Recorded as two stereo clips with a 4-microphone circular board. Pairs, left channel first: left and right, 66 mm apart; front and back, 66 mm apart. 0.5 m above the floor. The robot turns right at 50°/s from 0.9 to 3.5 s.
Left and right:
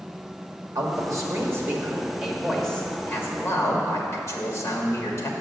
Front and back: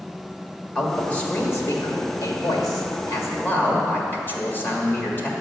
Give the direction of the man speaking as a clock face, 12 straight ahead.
3 o'clock.